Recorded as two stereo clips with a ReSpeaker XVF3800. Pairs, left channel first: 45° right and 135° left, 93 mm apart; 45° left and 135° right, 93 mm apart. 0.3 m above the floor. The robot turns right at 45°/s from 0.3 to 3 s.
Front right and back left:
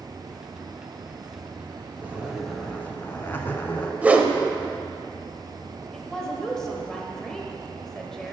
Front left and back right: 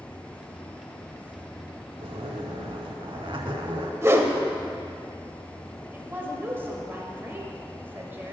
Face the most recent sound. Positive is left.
turn(degrees=-120)